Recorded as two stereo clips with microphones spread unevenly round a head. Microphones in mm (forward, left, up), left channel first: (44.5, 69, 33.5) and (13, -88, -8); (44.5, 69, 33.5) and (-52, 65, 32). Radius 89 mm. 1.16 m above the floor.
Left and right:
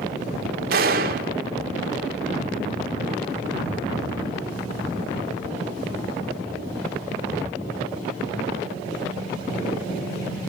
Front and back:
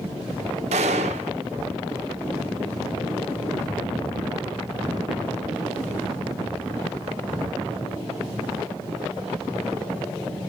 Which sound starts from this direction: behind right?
A gunshot, at 0.7 s.